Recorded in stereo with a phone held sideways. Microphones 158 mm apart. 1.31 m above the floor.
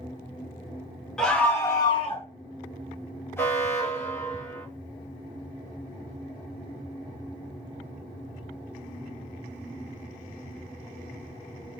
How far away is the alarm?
About 1.1 m.